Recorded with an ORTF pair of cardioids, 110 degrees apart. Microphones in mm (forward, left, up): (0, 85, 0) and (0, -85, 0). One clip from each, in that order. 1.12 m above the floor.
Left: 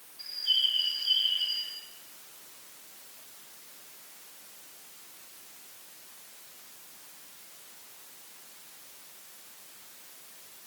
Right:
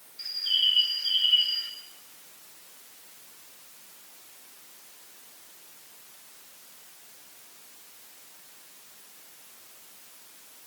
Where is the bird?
50° right, 1.7 m.